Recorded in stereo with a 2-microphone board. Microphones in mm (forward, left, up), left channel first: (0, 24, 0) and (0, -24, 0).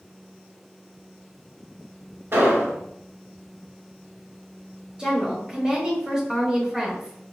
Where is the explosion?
55° right (ahead or behind), 1.2 m.